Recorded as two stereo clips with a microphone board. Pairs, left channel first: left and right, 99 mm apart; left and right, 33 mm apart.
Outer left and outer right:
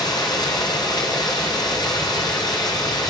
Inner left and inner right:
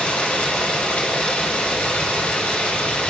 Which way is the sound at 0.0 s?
45° left (ahead or behind).